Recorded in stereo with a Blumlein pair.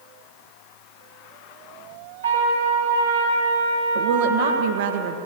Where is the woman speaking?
55° right, 1.7 m.